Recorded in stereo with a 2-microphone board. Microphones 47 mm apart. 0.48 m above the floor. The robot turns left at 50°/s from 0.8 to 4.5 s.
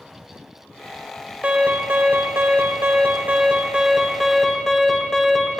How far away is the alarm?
About 2 m.